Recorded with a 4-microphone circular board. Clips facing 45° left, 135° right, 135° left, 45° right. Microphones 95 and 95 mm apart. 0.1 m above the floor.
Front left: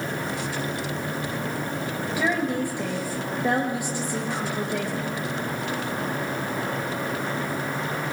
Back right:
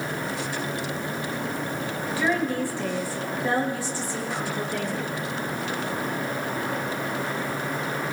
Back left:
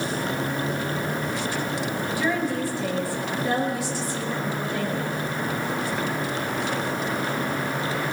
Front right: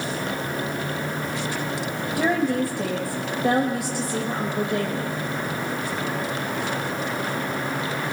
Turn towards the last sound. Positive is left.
turn(degrees=-25)